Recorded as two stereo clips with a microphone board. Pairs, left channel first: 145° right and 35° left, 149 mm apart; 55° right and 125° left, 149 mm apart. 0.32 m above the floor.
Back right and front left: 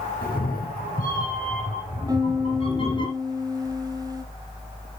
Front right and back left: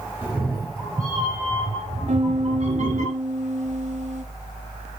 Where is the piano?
95° left, 0.8 m.